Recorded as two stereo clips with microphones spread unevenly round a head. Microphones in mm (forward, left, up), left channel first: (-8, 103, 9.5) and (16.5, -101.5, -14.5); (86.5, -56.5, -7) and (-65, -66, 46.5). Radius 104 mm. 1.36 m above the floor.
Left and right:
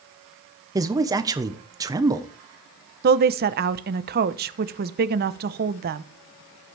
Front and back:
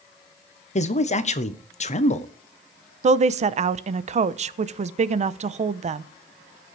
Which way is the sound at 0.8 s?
15° right.